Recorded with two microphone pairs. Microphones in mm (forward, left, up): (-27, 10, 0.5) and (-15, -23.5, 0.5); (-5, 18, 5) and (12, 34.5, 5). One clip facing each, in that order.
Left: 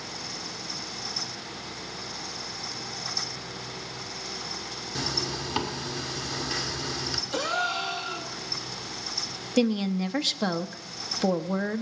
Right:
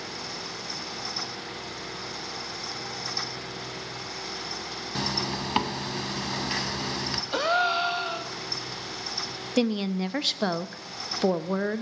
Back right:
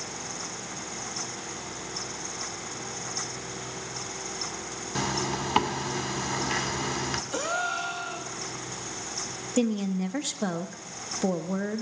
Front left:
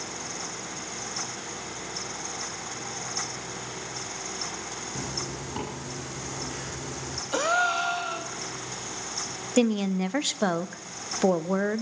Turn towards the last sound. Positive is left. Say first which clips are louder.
# left 1 dB, front left 3 dB
turn(degrees=10)